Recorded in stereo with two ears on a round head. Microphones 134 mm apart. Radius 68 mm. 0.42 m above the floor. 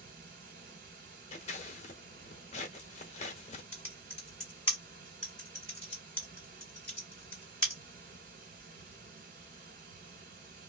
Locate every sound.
0.0 s running water: 65° right (ahead or behind), 1.3 m
1.3 s scissors: 45° left (ahead or behind), 0.9 m
3.7 s typing on a keyboard: 5° left (ahead or behind), 1.6 m